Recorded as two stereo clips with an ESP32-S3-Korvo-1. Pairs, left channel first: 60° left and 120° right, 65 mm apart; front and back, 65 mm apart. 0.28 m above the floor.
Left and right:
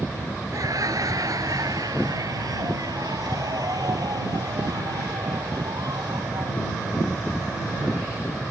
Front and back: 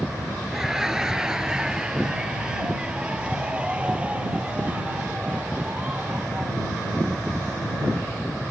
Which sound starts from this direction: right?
Laughter, at 0.5 s.